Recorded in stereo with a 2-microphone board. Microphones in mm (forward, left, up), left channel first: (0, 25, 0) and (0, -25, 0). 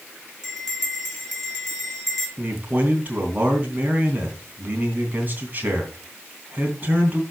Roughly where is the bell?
Centre.